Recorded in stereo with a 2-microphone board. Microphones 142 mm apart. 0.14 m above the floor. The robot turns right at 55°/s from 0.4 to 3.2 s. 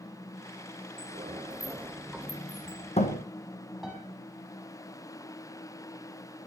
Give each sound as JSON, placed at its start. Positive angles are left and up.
{"t": 1.0, "sound": "a sliding door", "side_deg": -60, "distance_m": 2.5}
{"t": 3.8, "sound": "a piano", "side_deg": 0, "distance_m": 6.5}